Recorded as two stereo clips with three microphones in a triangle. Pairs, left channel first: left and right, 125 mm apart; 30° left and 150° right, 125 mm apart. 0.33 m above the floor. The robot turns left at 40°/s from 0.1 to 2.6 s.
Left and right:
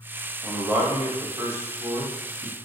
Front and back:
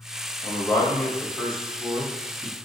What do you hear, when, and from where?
0.4 s a man speaking: 10° right, 1.2 m; by 2.6 s 95° right, 1.2 m